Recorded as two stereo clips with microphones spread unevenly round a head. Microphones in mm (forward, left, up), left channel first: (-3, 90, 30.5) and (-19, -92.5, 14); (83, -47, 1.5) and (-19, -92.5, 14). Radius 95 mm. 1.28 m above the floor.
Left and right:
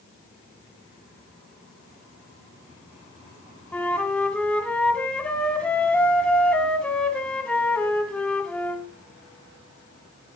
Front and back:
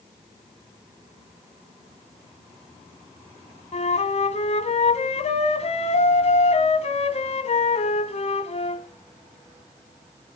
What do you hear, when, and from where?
3.7 s a flute: 5° left, 2.5 m